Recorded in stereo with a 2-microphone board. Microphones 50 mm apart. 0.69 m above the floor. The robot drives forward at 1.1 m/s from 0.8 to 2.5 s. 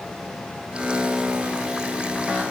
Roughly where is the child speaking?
I don't hear a child speaking.